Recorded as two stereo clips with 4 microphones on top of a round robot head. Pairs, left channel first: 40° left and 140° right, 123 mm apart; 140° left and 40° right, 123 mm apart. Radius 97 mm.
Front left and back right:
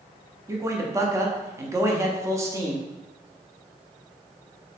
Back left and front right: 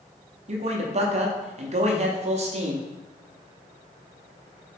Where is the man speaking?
75° right, 0.6 m.